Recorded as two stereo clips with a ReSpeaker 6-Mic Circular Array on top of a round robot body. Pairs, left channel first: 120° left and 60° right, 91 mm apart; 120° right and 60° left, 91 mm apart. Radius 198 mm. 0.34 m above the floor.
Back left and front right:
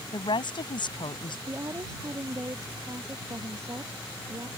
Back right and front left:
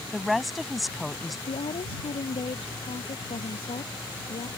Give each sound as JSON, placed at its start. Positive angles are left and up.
{"t": 0.1, "sound": "a woman speaking", "azimuth_deg": 150}
{"t": 1.5, "sound": "a woman speaking", "azimuth_deg": -120}